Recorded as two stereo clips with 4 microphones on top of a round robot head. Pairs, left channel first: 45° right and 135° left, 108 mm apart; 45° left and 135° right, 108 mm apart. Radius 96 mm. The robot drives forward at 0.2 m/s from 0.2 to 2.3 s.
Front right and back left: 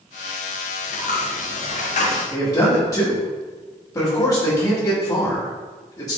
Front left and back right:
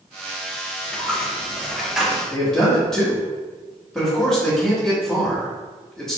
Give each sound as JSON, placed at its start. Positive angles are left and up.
{"t": 0.8, "sound": "a dropped coin", "azimuth_deg": -35, "distance_m": 0.8}
{"t": 2.3, "sound": "a man speaking", "azimuth_deg": -40, "distance_m": 1.4}